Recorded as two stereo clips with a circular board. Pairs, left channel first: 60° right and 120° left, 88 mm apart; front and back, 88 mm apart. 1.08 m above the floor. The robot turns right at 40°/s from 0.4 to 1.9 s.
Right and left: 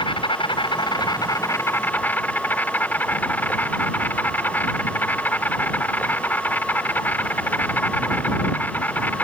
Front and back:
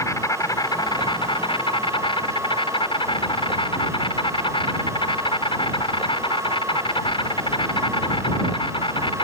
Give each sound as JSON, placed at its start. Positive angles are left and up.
{"t": 0.0, "sound": "an insect", "azimuth_deg": -50}